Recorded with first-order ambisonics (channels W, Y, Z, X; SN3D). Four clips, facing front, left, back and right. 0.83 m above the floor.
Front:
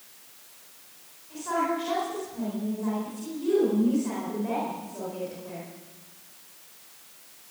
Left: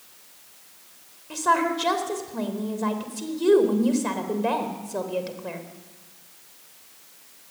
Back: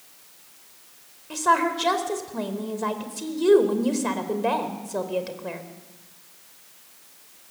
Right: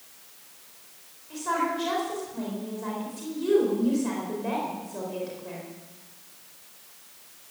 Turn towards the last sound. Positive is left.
turn(degrees=150)